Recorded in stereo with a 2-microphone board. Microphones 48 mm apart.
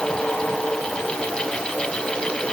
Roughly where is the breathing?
No breathing in this recording.